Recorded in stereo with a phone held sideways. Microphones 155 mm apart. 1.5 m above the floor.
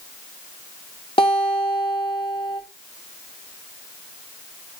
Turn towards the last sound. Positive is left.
turn(degrees=35)  # may be behind; listen again after turning